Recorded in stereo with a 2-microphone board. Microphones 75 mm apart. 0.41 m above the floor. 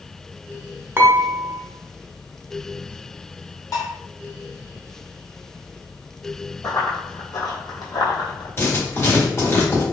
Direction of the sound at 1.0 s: 30° right (ahead or behind).